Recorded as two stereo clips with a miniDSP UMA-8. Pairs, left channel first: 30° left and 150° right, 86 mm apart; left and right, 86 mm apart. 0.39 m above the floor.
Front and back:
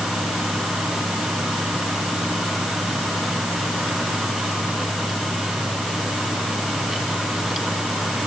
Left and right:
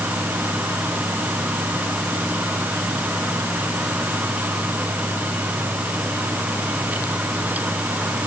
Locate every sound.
Only background noise.